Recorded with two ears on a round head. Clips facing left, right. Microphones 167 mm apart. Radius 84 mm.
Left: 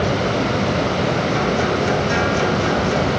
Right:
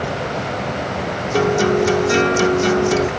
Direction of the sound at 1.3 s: 60° right (ahead or behind).